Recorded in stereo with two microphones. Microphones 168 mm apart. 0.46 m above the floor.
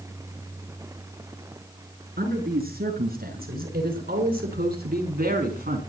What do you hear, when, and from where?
2.2 s a man speaking: 65° right (ahead or behind), 7 m